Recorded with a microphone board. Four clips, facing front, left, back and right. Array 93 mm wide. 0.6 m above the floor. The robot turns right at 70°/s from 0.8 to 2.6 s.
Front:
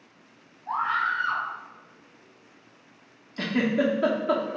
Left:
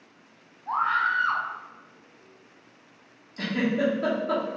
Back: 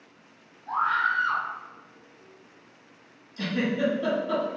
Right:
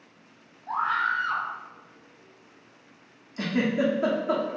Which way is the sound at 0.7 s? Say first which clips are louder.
Left 2 dB, back 1 dB; 65° left.